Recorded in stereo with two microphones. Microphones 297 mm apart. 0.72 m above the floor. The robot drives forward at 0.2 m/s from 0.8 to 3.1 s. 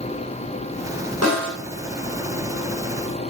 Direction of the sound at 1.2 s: 55° right (ahead or behind).